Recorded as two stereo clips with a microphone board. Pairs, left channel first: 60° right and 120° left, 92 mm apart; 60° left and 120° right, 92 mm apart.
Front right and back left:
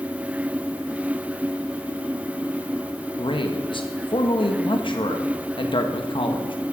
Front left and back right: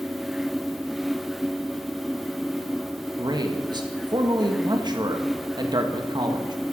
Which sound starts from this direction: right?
A man speaking, at 3.2 s.